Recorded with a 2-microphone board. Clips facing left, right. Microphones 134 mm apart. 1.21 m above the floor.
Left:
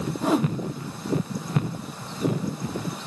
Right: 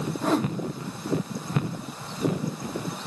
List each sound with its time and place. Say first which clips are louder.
0.2 s a whoosh: left 2 dB; 5° left (ahead or behind), 0.8 m